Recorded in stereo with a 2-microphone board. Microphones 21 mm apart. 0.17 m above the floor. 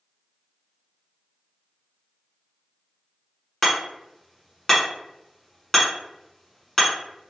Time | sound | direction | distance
3.6 | hammering | 15° left (ahead or behind) | 1.5 m